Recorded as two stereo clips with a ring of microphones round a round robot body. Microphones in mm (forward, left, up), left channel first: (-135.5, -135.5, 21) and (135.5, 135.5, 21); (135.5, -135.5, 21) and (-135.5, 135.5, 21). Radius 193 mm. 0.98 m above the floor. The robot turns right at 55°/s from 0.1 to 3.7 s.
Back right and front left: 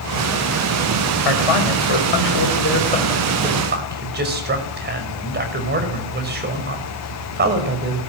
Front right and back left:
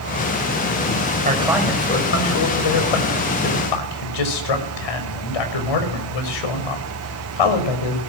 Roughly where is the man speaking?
Behind right.